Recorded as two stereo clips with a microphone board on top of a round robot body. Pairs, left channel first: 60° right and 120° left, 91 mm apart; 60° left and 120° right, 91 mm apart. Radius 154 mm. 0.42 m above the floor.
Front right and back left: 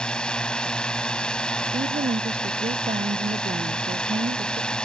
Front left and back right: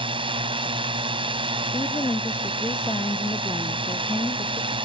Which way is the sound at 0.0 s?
140° right.